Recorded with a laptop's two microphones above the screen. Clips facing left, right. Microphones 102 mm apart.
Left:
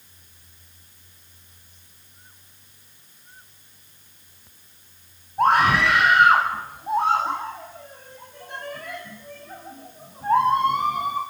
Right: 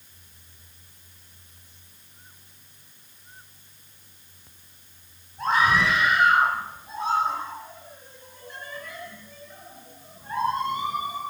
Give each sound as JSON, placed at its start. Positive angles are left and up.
{"t": 5.4, "sound": "a scream", "side_deg": 65, "distance_m": 8.5}